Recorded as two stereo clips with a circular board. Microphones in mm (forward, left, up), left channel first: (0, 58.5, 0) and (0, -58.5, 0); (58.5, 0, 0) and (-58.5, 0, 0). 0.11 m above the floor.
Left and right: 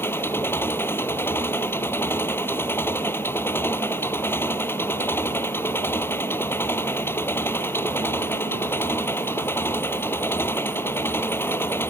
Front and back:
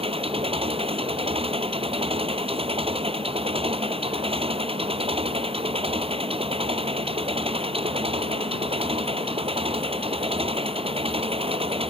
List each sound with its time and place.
0.0 s an engine running: 160° left